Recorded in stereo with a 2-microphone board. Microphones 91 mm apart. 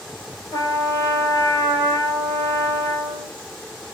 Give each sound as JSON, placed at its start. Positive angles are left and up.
{"t": 0.5, "sound": "a trumpet", "side_deg": 40, "distance_m": 1.4}